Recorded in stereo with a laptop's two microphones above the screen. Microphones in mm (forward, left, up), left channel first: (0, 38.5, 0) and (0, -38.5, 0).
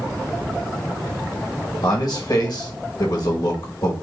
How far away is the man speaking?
About 1.0 m.